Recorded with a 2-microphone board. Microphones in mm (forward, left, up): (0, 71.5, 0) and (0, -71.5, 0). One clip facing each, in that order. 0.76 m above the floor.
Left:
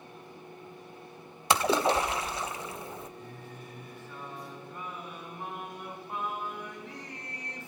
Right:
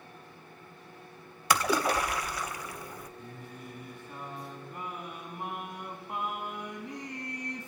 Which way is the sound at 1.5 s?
25° left (ahead or behind).